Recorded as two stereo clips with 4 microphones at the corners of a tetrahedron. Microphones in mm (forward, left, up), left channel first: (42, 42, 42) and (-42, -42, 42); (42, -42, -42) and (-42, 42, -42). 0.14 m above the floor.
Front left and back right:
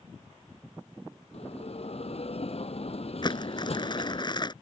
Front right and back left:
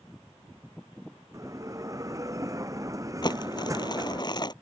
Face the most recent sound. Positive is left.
turn(degrees=0)